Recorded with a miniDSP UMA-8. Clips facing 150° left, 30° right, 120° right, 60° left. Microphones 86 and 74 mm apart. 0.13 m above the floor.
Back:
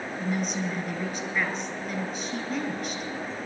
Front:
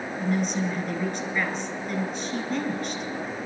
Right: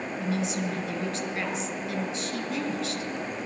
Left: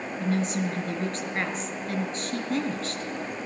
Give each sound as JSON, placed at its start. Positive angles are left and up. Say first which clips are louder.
{"t": 0.2, "sound": "a woman speaking", "louder": "front 3 dB, left 3 dB", "azimuth_deg": 65, "distance_m": 2.5}